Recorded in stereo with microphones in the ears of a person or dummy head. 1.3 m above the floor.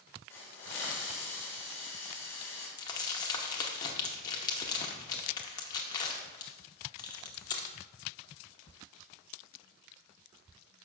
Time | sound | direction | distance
0.3 | a hiss | 15° left (ahead or behind) | 2.5 m
2.8 | crumpling | 20° left (ahead or behind) | 0.8 m